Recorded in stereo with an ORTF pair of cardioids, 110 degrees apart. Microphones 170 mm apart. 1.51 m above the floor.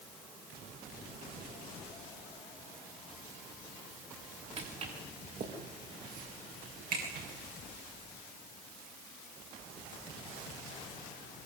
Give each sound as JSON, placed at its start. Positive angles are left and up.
{"t": 4.6, "sound": "footsteps", "azimuth_deg": -40, "distance_m": 7.5}